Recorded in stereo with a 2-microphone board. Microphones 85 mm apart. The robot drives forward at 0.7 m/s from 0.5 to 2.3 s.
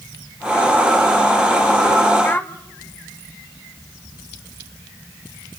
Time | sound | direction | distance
2.2 | a child speaking | 25° left (ahead or behind) | 1.0 m